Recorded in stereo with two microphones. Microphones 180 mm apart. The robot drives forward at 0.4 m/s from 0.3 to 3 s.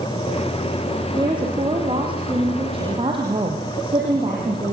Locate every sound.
1.2 s a woman speaking: 25° right (ahead or behind), 5.5 m; by 4.8 s 30° right (ahead or behind), 4.5 m